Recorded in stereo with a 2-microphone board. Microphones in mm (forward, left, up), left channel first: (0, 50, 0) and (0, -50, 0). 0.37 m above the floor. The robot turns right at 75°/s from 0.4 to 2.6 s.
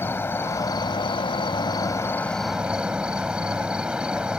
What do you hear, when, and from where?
0.0 s an insect: 25° left; by 4.4 s 170° right